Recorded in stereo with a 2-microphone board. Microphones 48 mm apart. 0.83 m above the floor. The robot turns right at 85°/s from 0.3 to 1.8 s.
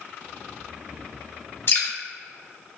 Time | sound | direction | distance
1.7 | dripping | 55° left (ahead or behind) | 0.8 m